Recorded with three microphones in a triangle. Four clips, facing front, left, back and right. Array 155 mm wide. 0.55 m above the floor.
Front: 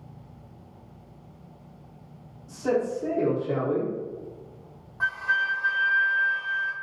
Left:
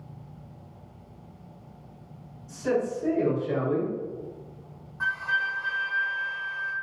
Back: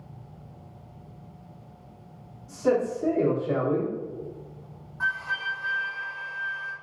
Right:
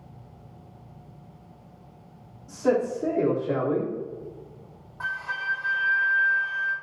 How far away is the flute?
About 1.5 m.